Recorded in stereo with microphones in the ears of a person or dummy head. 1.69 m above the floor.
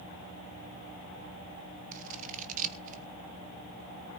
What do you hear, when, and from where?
1.9 s scissors: 45° right (ahead or behind), 1.2 m